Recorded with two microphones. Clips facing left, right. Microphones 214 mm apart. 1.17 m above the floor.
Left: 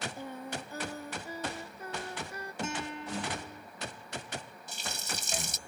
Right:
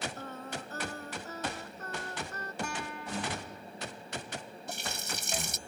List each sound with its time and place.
0.2 s singing: 10° left (ahead or behind)
2.6 s a guitar: 25° left (ahead or behind)
4.7 s a running tap: 60° right (ahead or behind)